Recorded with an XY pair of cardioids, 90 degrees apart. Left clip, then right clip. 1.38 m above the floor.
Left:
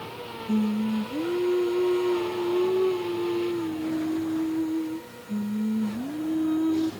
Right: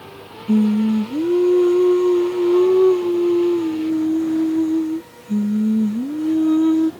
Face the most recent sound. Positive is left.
turn(degrees=-60)